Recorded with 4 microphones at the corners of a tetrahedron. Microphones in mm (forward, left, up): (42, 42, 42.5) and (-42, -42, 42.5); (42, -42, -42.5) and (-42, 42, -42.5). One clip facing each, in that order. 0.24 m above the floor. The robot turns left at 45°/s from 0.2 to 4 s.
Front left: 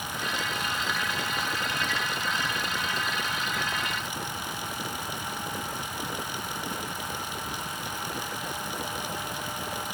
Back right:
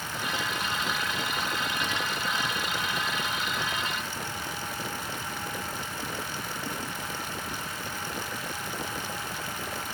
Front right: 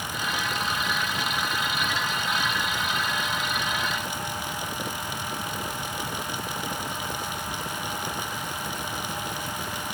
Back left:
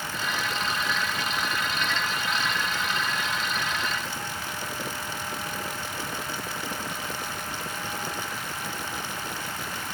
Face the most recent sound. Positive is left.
No sound to turn to.